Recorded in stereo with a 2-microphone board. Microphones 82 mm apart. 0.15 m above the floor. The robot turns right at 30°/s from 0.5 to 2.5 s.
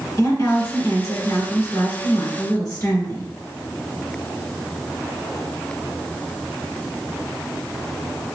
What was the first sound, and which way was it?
A woman speaking, 45° left.